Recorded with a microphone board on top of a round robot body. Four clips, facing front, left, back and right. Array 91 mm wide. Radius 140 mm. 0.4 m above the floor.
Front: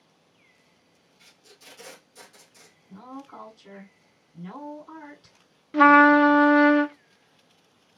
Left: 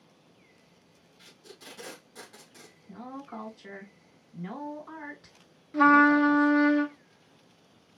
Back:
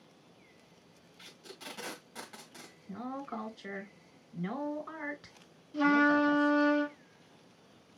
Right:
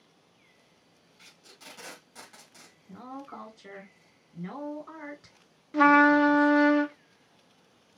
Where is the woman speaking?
175° right, 3 m.